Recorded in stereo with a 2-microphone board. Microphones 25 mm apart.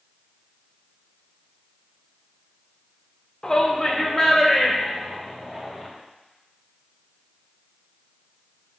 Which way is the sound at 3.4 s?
30° left (ahead or behind).